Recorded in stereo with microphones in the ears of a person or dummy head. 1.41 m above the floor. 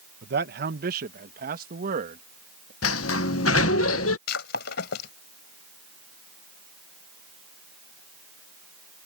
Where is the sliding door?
85° left.